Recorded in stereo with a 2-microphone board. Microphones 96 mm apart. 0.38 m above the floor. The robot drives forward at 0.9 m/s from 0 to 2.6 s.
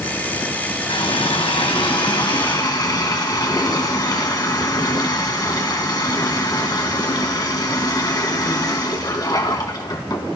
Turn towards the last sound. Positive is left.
turn(degrees=45)  # may be behind; listen again after turning